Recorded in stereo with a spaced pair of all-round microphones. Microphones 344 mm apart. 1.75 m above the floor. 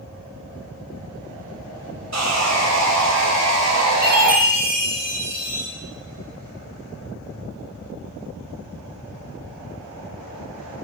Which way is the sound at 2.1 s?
50° right (ahead or behind).